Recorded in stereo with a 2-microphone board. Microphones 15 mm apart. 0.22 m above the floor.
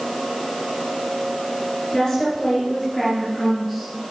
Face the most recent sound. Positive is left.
turn(degrees=0)  # may be behind; listen again after turning